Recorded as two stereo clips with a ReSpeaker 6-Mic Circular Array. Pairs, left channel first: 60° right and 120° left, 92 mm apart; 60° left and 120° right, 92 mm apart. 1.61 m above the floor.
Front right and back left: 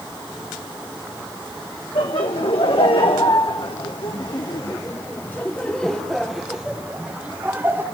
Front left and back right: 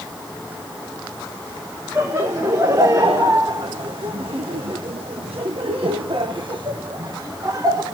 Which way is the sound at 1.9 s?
65° right.